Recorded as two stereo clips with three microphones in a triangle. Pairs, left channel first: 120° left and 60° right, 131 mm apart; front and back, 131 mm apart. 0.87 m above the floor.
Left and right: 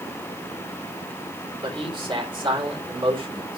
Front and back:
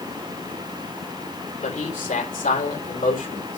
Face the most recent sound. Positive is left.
turn(degrees=-10)